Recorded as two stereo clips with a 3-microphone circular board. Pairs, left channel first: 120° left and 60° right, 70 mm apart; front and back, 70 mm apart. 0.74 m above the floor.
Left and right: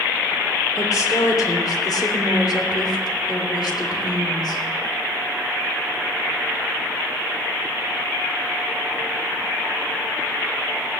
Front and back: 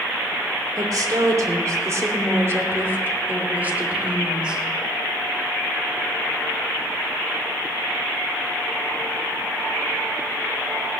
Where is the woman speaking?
150° left, 2.5 m; by 4.6 s 105° left, 3 m.